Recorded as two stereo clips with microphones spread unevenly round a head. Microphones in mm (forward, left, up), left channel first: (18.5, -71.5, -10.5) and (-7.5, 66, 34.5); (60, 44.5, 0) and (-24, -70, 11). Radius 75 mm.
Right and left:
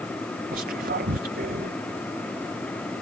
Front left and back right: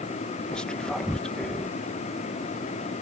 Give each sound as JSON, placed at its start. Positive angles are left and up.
{"t": 0.5, "sound": "whispering", "azimuth_deg": 140}